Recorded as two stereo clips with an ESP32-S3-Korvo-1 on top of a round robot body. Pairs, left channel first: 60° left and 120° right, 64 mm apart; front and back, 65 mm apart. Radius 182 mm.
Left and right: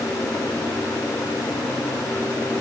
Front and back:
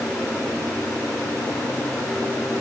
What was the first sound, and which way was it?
Only background noise.